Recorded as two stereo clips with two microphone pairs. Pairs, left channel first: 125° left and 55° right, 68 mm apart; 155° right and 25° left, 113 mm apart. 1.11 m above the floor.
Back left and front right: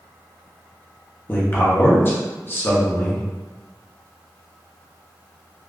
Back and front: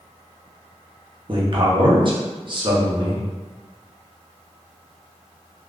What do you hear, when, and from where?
1.3 s a man speaking: 65° left, 0.9 m